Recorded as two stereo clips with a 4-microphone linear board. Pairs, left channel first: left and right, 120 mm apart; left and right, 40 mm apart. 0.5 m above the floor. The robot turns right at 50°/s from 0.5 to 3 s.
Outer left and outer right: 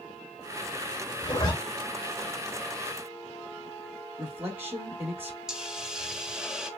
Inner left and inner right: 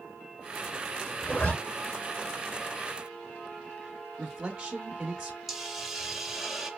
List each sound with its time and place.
1.2 s a zipper: 35° left (ahead or behind), 1.5 m; by 1.5 s 40° left (ahead or behind), 1.5 m
4.2 s a man speaking: 15° right (ahead or behind), 0.7 m
5.5 s a hiss: 5° right (ahead or behind), 0.6 m